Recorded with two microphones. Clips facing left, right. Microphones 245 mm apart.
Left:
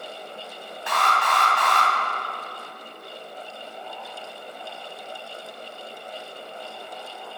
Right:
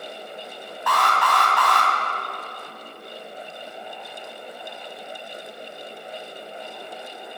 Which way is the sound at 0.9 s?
25° left (ahead or behind).